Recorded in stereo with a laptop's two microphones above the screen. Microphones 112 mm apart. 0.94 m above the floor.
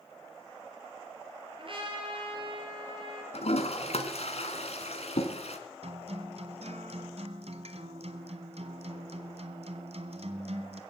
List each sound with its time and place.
1.6 s a trumpet: 50° right (ahead or behind), 4.5 m
3.3 s a toilet flushing: 70° left (ahead or behind), 2 m
5.8 s a guitar: 65° right (ahead or behind), 1.6 m